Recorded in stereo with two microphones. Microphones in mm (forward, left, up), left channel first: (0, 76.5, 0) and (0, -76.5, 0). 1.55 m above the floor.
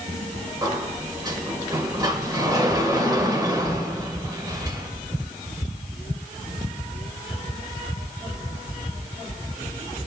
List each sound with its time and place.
0.6 s a sliding door: 25° right (ahead or behind), 2 m